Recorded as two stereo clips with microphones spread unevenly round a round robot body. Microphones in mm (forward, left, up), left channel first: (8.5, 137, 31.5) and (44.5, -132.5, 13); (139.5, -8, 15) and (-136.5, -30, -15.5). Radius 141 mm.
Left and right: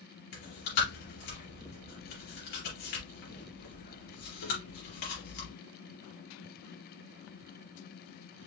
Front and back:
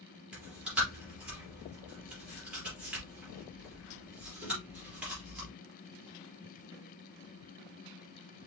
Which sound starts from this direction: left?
Chewing, at 0.3 s.